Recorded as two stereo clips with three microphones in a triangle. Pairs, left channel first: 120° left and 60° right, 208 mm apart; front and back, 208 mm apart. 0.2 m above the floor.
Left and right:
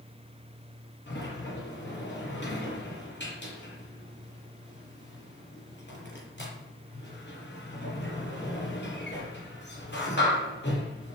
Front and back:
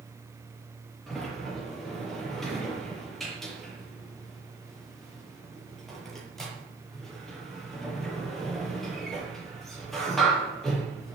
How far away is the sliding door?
About 6 m.